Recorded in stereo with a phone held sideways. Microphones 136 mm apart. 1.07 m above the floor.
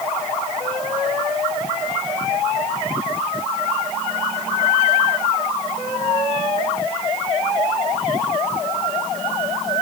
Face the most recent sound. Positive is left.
No sound to turn to.